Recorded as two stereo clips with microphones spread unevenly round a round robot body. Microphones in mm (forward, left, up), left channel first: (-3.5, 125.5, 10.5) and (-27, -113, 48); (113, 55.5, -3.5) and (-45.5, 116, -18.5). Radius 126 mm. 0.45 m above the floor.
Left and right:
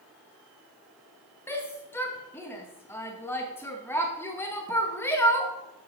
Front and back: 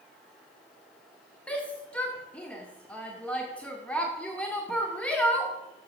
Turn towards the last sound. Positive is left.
turn(degrees=60)